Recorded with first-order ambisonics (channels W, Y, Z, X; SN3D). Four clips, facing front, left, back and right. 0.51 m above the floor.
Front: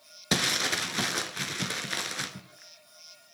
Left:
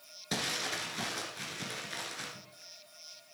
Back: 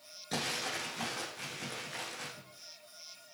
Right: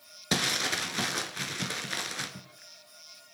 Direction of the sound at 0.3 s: 30° right.